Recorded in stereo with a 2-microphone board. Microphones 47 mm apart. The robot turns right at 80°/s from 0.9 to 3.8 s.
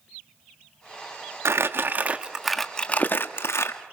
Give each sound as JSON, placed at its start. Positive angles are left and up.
{"t": 1.4, "sound": "crumpling", "azimuth_deg": -85, "distance_m": 1.2}